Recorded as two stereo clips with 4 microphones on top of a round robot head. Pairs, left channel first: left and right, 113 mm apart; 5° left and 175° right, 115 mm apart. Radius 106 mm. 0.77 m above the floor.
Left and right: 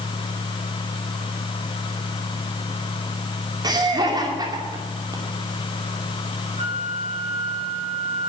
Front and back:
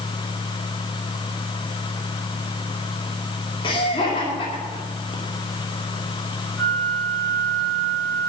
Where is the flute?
75° right, 4.5 m.